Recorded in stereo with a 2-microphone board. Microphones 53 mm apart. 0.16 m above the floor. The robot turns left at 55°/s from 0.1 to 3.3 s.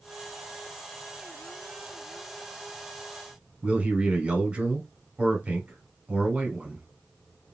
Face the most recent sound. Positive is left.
turn(degrees=-25)  # may be behind; listen again after turning